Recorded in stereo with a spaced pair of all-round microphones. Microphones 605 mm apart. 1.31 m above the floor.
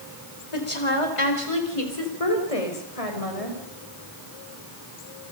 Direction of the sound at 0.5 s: 55° left (ahead or behind).